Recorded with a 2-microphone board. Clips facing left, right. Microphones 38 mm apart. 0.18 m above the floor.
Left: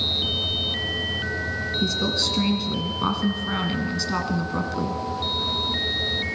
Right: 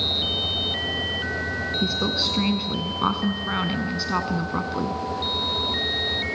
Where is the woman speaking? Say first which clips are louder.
Left 1 dB; 15° right (ahead or behind), 1.5 m.